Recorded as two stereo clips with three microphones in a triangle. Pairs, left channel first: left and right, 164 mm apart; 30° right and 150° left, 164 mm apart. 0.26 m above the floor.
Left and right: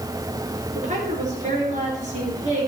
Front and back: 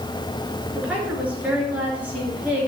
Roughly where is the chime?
No chime in this recording.